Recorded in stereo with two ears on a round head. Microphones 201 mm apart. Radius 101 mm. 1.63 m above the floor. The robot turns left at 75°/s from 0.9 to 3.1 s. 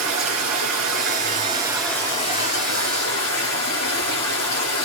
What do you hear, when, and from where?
0.0 s running water: 110° right, 4.5 m; by 4.8 s 85° left, 4.5 m